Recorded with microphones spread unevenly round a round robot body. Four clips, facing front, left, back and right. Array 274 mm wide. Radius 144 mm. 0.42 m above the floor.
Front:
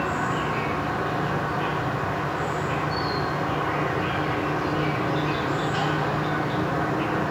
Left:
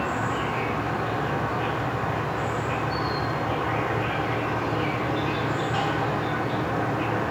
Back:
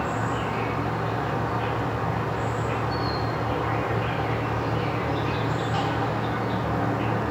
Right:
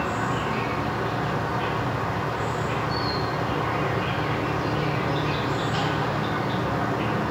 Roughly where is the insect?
Behind left.